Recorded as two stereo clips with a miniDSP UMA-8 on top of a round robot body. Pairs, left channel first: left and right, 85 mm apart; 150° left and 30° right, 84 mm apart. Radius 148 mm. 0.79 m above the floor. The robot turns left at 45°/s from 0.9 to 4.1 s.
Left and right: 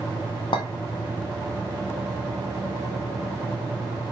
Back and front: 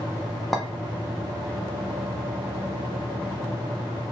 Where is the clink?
60° left, 0.7 m.